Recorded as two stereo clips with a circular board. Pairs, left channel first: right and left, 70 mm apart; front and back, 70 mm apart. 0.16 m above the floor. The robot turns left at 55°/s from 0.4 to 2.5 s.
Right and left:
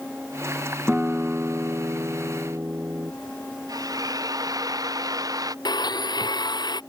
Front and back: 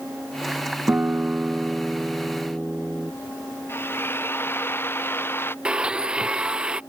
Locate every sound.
0.9 s a guitar: 155° left; by 3.1 s 65° left
3.7 s a drill: 60° left
5.7 s a blender: 105° right